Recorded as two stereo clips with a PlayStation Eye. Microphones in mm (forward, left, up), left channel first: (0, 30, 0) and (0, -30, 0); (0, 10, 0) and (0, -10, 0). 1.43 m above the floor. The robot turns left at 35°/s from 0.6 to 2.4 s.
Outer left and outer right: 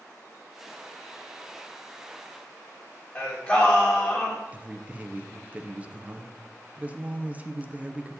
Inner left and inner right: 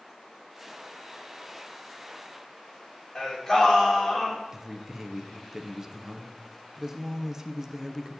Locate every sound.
3.1 s singing: 25° left (ahead or behind), 2.5 m
4.5 s a man speaking: 25° right (ahead or behind), 0.8 m